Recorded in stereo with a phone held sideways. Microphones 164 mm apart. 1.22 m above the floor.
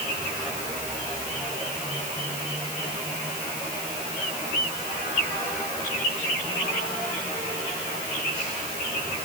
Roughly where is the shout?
No shout in this recording.